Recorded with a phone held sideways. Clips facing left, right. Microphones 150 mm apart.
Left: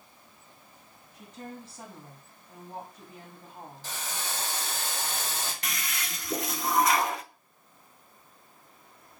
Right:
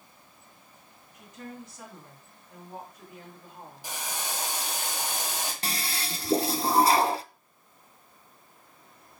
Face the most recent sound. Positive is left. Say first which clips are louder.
# right 3 dB
turn(degrees=-30)  # may be behind; listen again after turning